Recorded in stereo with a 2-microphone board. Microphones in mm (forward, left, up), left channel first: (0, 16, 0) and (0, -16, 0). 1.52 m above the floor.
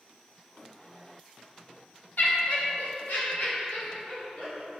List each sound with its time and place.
2.2 s laughter: 80° left, 0.9 m; by 4.8 s 70° left (ahead or behind), 2.5 m